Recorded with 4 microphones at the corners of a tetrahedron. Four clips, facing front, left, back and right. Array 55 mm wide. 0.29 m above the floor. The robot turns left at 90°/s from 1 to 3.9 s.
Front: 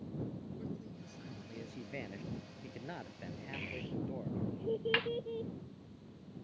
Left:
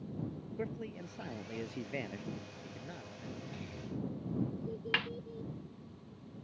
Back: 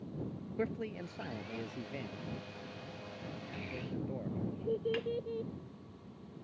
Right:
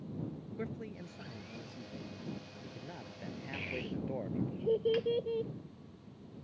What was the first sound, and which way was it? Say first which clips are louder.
A man speaking: left 2 dB, back 8 dB; 170° left.